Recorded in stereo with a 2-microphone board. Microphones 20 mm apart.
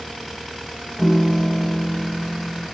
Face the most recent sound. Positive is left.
turn(degrees=55)  # may be behind; listen again after turning